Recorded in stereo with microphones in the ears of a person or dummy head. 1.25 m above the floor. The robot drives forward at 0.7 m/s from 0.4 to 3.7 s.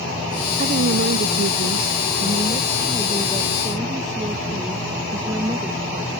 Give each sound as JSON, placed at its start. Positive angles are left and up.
{"t": 0.6, "sound": "a woman speaking", "side_deg": -50}